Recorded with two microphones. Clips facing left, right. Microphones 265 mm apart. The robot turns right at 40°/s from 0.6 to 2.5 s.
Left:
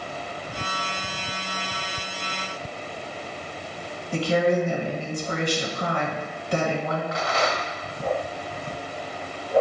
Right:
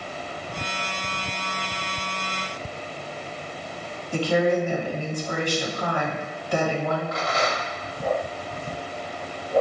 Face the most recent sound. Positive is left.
turn(degrees=-45)  # may be behind; listen again after turning